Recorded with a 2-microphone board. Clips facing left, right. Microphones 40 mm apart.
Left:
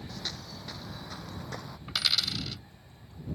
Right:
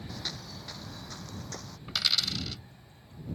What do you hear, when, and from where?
0.1 s footsteps: 5° right (ahead or behind); by 1.8 s 20° left (ahead or behind)
1.9 s a dropped coin: 5° left (ahead or behind)